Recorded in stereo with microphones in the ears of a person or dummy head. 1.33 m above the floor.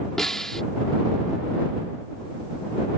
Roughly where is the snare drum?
Centre.